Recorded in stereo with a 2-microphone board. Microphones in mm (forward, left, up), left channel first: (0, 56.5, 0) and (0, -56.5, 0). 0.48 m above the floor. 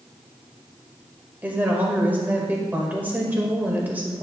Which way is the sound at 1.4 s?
15° right (ahead or behind).